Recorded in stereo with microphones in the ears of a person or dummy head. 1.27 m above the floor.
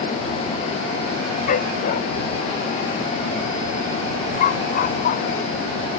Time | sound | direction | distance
1.5 | a dog barking | 45° left (ahead or behind) | ?